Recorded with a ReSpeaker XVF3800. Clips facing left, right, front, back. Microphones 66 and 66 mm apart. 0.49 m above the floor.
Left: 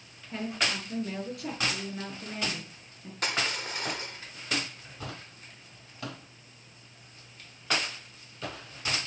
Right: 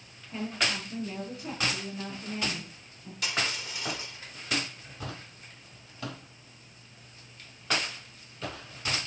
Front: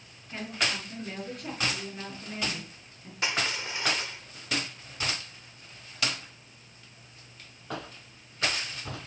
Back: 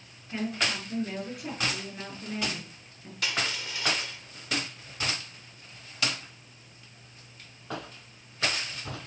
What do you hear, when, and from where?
0.3 s a woman speaking: 95° left, 7.5 m
3.2 s crushing: 60° left, 1.2 m